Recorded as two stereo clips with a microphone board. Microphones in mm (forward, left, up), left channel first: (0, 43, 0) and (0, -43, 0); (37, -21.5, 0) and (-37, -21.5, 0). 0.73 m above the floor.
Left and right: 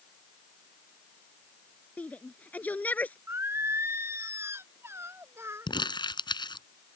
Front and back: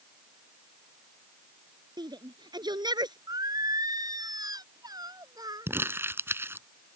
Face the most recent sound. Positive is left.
turn(degrees=120)